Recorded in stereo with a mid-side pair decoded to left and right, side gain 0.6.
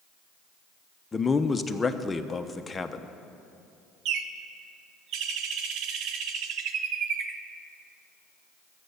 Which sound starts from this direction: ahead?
A man speaking, at 1.1 s.